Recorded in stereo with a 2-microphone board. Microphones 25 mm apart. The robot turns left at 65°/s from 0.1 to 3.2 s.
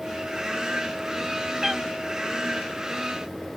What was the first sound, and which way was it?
A cat meowing, 15° right (ahead or behind).